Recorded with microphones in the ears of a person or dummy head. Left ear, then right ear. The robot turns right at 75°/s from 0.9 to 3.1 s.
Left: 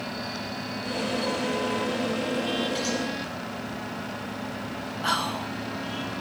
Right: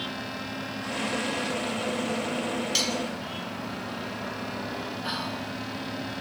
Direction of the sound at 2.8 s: 55° right (ahead or behind).